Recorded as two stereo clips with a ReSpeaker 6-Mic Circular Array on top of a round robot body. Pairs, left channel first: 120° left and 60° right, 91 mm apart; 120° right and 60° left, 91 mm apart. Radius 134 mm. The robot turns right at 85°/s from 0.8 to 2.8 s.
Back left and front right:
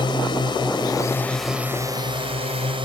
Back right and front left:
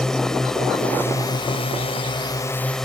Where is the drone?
155° left; by 2.9 s 35° right.